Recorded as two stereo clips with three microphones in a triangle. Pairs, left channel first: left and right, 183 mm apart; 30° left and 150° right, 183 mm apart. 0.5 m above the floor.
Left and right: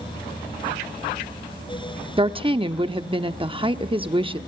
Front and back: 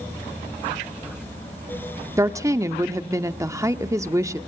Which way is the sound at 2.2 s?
95° right.